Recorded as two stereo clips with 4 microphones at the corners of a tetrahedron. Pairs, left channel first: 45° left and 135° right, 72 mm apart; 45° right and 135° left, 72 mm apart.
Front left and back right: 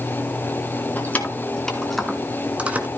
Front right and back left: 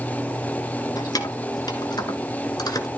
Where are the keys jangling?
20° right, 2.5 m; by 2.9 s 70° right, 2 m.